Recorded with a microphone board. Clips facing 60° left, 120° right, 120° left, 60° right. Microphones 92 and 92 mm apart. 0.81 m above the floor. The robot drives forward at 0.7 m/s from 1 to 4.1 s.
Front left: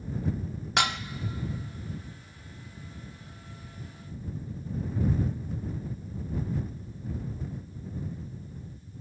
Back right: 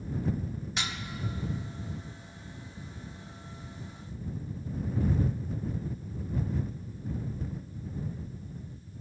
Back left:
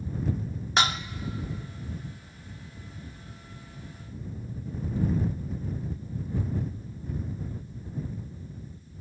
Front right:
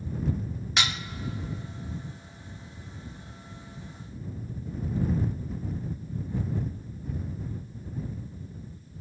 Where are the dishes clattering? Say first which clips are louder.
Front left 11 dB, back left 5 dB; 70° left, 0.6 m.